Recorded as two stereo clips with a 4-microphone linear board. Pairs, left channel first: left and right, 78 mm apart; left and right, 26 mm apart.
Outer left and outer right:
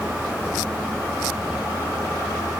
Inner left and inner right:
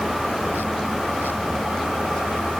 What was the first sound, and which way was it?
Only background noise.